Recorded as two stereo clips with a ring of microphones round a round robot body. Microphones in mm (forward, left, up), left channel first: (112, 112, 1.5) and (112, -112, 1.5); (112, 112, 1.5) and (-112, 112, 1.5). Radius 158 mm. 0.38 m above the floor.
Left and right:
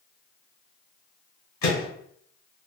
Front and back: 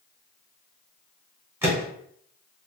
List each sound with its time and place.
1.6 s a microwave: 100° left, 1.6 m